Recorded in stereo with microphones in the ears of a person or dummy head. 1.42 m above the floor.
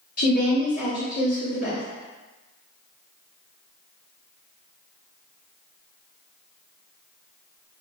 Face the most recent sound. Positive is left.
turn(degrees=50)  # may be behind; listen again after turning